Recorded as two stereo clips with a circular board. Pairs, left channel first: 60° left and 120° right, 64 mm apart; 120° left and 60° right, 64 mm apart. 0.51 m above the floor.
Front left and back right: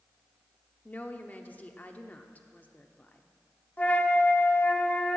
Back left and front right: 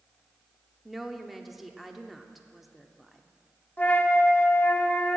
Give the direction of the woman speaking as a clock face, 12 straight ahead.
11 o'clock.